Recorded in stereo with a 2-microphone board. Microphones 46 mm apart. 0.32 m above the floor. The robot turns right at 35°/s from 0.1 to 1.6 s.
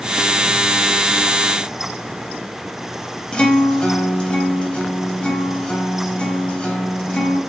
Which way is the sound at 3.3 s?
25° left (ahead or behind).